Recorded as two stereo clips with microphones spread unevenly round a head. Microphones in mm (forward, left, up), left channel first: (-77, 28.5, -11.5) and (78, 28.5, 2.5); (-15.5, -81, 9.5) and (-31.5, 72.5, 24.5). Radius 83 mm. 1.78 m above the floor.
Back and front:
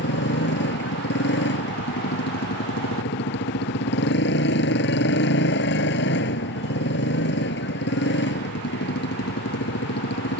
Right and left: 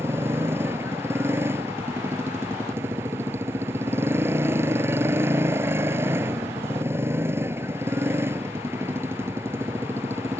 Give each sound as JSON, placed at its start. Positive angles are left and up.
{"t": 0.0, "sound": "a motorcycle", "azimuth_deg": 170}